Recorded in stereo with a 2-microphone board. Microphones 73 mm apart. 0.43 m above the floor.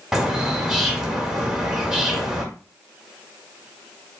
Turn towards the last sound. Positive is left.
turn(degrees=-10)  # may be behind; listen again after turning